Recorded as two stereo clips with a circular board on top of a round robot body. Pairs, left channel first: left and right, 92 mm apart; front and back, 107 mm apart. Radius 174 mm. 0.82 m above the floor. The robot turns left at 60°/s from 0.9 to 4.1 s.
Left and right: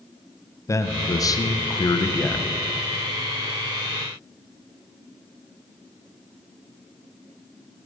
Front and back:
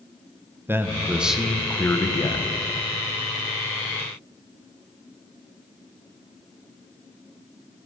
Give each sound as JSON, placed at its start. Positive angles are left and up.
{"t": 0.7, "sound": "a man speaking", "azimuth_deg": 120, "distance_m": 0.9}